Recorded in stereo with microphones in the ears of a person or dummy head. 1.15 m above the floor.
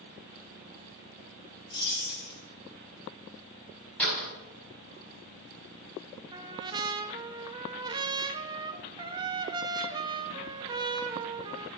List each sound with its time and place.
1.7 s keys jangling: 30° left (ahead or behind), 3.5 m
4.0 s a door slam: 5° left (ahead or behind), 5 m
6.3 s a trumpet: 20° right (ahead or behind), 0.5 m